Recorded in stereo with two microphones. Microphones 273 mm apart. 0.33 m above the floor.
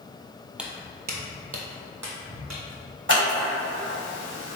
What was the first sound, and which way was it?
Footsteps, 5° right (ahead or behind).